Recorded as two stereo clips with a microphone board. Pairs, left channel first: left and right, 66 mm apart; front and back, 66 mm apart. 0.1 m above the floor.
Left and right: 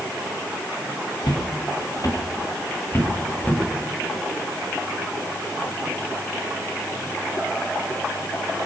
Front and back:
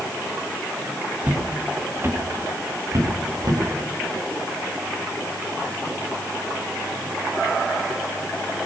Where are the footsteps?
110° left, 2.5 m; by 3.6 s 155° left, 3 m.